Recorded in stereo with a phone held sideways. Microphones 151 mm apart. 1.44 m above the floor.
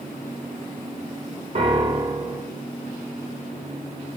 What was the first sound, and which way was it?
A piano, 45° right (ahead or behind).